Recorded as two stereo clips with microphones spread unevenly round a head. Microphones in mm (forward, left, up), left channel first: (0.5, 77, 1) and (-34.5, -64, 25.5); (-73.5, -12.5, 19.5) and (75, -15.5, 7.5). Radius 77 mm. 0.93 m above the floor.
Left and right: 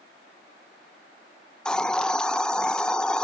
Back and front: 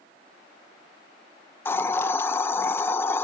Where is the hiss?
115° left, 0.8 m.